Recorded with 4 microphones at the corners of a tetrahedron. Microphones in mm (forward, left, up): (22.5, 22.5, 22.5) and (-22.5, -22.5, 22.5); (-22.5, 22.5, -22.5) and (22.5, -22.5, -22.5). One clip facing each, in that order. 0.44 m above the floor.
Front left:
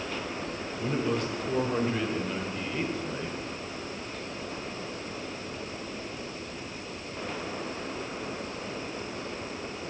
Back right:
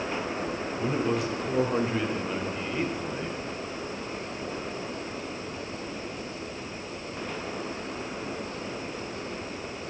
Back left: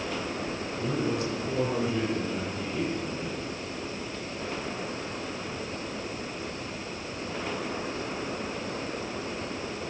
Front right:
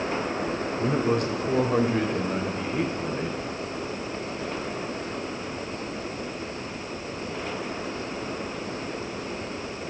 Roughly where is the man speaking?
Ahead right.